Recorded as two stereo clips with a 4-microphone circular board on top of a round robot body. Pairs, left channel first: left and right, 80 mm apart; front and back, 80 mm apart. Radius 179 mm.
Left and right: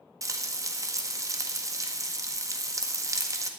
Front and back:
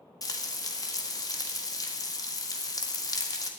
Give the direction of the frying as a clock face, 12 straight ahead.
1 o'clock.